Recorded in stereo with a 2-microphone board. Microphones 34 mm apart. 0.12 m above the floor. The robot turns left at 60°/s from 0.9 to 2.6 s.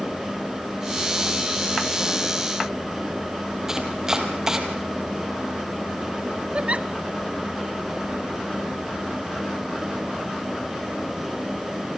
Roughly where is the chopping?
Centre.